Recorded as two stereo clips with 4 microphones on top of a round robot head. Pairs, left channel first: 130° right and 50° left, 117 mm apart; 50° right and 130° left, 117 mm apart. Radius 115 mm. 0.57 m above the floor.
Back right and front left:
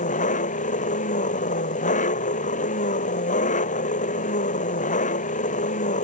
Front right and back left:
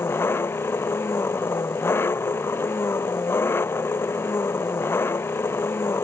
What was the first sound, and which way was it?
An engine running, 120° right.